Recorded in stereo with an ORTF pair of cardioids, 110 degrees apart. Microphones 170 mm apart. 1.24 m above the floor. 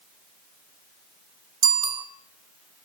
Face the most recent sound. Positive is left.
turn(degrees=-25)